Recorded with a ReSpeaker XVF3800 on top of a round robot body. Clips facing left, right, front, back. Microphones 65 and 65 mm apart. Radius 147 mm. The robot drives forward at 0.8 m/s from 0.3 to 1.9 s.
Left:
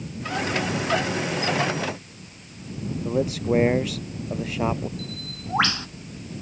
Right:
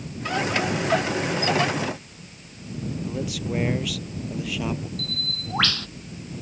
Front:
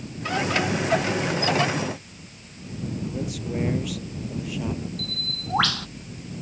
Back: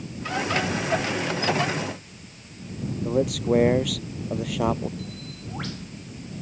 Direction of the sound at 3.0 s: 145° left.